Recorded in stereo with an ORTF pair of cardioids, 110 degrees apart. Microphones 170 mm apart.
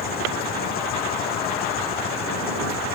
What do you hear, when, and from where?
0.0 s an engine running: 60° left